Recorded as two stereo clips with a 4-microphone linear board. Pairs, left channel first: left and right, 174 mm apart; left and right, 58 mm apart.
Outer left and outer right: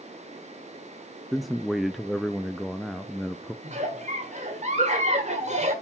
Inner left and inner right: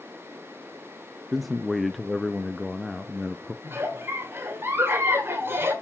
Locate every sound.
1.3 s a man speaking: centre (ahead or behind), 0.5 m
3.6 s a giggle: 40° right (ahead or behind), 1.9 m